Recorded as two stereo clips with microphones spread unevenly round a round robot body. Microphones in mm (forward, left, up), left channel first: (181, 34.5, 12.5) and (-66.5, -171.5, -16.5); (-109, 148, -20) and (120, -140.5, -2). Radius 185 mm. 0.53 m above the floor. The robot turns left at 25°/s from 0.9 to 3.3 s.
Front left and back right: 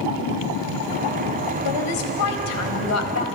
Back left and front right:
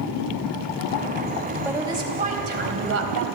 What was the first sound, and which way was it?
A woman speaking, 35° left.